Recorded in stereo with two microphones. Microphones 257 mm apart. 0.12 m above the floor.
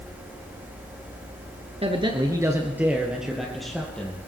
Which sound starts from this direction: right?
A man speaking, at 1.8 s.